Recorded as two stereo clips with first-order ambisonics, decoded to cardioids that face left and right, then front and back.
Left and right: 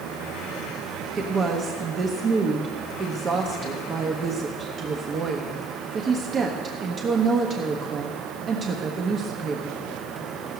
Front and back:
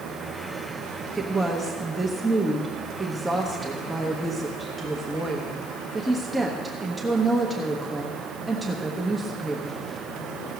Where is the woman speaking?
105° right, 0.9 m.